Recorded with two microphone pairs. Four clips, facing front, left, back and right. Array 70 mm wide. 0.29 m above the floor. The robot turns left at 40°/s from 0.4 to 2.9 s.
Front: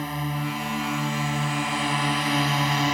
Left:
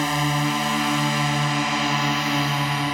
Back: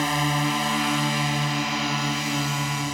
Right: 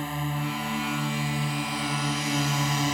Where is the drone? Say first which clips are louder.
Left 8 dB, back 6 dB; 130° left; by 3.0 s 30° left.